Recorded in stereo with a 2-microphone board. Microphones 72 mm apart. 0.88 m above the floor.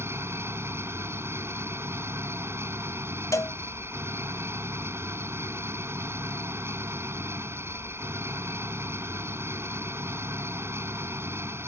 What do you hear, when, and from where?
0.0 s an engine running: 35° right (ahead or behind)
3.3 s a cowbell: 45° left (ahead or behind)